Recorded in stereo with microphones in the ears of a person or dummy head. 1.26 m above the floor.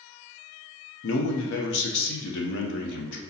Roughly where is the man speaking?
Left.